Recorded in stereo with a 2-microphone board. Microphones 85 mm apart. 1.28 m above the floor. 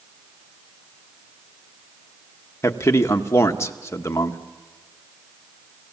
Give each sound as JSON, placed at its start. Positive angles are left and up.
{"t": 2.6, "sound": "a man speaking", "side_deg": 35, "distance_m": 1.0}